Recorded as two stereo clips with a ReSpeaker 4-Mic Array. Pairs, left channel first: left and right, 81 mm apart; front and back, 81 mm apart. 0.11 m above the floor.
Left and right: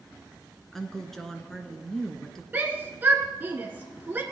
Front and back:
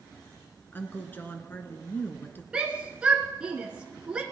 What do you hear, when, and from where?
0.7 s a woman speaking: 10° left, 1.3 m
2.5 s a shout: 120° right, 1.1 m